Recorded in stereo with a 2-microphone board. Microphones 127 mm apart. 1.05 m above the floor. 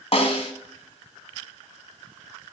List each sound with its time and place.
0.1 s a snare drum: 50° left (ahead or behind), 1.6 m